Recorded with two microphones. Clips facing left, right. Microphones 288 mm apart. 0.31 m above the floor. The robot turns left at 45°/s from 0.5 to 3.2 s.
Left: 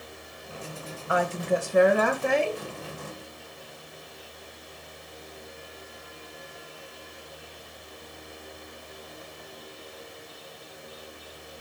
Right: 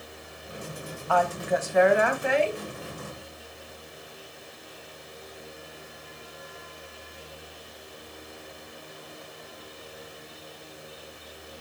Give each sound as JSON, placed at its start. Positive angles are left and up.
{"t": 1.1, "sound": "a woman speaking", "azimuth_deg": 155, "distance_m": 1.4}